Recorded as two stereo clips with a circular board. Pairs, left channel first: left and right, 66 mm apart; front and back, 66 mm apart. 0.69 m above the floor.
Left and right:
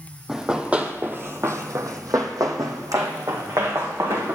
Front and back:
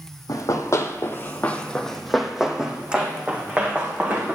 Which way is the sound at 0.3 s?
10° right.